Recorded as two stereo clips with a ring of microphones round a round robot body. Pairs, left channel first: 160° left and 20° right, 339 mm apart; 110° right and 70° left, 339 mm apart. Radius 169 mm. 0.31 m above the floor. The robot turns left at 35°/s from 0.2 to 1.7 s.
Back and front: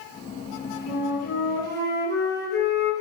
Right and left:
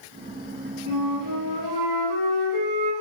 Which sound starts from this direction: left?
A flute, at 0.9 s.